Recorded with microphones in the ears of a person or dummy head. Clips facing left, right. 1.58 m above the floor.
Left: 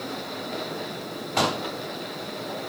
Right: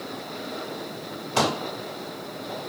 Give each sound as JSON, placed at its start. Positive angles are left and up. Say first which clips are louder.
{"t": 1.4, "sound": "a pop", "louder": "right 1 dB", "side_deg": -60, "distance_m": 1.5}